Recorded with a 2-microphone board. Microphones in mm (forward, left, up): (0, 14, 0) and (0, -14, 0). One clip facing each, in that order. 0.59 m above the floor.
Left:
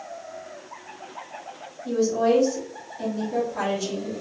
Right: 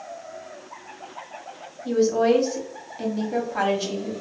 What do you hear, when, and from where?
1.9 s a woman speaking: 35° right (ahead or behind), 1.0 m